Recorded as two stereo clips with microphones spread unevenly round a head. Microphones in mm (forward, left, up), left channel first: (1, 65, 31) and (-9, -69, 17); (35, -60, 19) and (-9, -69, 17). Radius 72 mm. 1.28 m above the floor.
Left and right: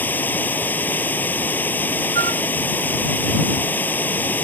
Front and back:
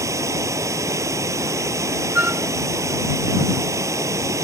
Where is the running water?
165° left.